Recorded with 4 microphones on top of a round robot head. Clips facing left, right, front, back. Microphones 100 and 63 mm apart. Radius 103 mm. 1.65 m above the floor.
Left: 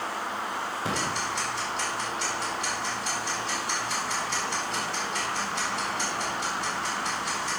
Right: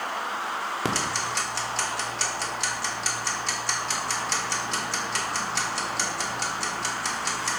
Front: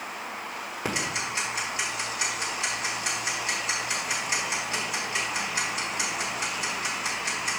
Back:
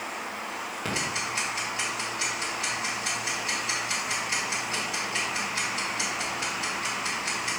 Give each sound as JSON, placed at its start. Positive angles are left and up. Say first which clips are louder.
{"t": 0.8, "sound": "ticking", "louder": "right 1 dB, front 1 dB", "azimuth_deg": -75, "distance_m": 1.1}